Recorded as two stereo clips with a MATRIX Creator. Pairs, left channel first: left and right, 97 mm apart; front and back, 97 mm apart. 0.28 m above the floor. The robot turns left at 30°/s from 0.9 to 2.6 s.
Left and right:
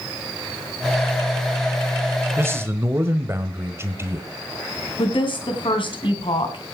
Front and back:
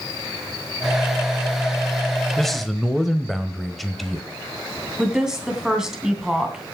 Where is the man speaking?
80° right, 1.1 m; by 4.3 s 85° right, 1.1 m.